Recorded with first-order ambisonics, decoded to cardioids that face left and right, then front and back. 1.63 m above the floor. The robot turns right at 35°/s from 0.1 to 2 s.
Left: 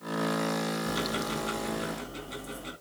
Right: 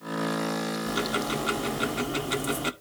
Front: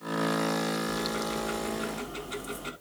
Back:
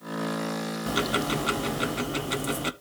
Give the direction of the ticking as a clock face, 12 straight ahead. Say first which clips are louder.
Right 3 dB, back 5 dB; 6 o'clock.